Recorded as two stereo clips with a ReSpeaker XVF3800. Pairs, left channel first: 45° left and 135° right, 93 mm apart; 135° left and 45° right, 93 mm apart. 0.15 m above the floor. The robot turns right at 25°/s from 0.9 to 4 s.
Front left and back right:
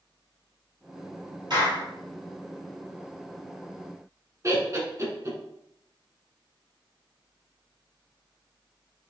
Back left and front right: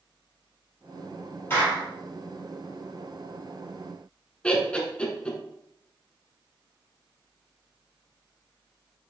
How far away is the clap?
About 2.5 m.